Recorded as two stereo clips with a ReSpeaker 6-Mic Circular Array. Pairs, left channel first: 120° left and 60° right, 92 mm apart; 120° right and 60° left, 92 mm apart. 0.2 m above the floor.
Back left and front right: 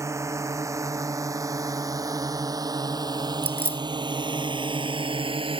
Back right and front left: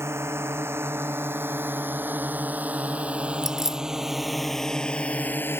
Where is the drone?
Straight ahead; by 5.6 s 55° right.